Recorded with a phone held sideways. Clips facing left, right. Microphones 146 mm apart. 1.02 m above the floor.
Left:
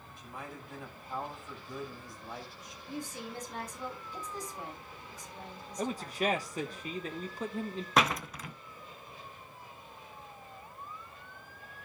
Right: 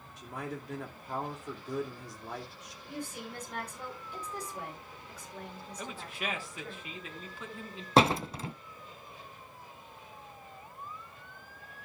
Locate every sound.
0.2 s a man speaking: 80° right, 2.5 m
2.9 s a woman speaking: 70° right (ahead or behind), 7.5 m
5.8 s a man speaking: 40° left (ahead or behind), 1.1 m
8.0 s a door slam: 30° right (ahead or behind), 0.6 m